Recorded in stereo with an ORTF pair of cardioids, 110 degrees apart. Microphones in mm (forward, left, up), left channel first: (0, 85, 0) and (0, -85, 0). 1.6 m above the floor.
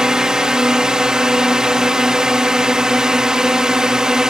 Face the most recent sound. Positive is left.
turn(degrees=-5)